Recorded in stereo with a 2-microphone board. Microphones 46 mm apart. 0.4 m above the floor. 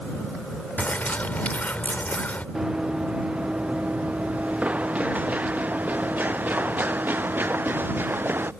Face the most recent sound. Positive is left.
turn(degrees=-50)  # may be behind; listen again after turning